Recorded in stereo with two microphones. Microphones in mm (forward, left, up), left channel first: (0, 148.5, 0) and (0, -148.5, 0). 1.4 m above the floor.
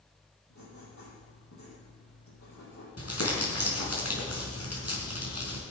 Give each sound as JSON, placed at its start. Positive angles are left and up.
{"t": 0.5, "sound": "writing", "side_deg": 65, "distance_m": 8.5}
{"t": 3.0, "sound": "crumpling", "side_deg": 55, "distance_m": 4.5}